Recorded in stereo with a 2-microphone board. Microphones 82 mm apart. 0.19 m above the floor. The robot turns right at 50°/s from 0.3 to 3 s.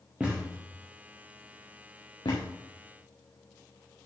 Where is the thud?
15° right (ahead or behind), 2.5 m; by 2.5 s 80° left, 2.5 m.